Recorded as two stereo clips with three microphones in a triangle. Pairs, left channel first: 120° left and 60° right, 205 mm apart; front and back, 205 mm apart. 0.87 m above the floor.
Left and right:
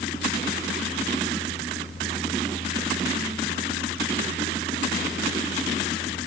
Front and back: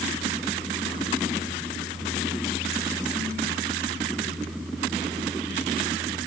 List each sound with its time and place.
Only background noise.